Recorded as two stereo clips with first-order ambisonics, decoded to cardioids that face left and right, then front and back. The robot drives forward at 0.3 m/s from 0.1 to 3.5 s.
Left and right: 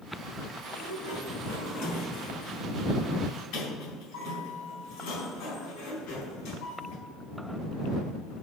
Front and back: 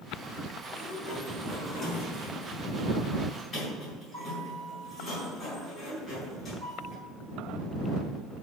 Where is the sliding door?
75° left, 4 m; by 7.0 s 85° left, 4 m.